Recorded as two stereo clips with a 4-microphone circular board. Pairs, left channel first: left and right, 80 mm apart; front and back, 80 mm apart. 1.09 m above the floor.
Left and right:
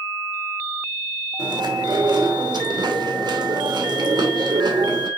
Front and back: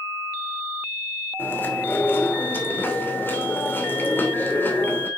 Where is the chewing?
65° right, 2.5 m.